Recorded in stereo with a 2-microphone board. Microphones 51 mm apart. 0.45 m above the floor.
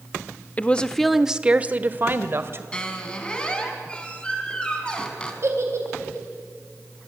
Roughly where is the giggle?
Right.